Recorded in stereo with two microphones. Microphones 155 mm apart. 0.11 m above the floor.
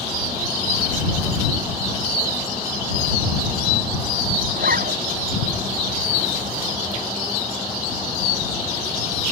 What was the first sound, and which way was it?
A zipper, 65° right (ahead or behind).